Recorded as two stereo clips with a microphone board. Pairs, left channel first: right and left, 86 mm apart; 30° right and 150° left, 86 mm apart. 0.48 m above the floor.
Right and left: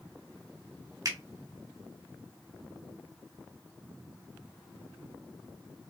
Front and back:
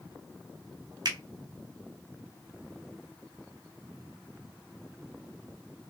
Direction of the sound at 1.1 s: 125° left.